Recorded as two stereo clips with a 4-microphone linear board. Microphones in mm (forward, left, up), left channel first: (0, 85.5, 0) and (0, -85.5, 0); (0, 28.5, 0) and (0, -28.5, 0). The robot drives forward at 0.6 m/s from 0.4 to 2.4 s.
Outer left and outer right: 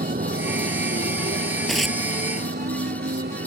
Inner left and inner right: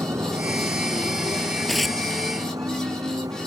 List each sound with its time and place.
0.0 s a motorcycle: 60° right (ahead or behind); by 3.5 s 80° right
1.7 s tearing paper: centre (ahead or behind)